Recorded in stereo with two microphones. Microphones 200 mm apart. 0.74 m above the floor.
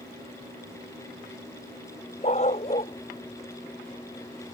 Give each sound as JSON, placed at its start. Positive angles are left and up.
{"t": 2.2, "sound": "a dog barking", "side_deg": 35}